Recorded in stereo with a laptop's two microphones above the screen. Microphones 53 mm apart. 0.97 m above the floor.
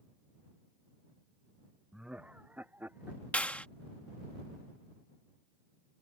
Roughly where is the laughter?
Centre.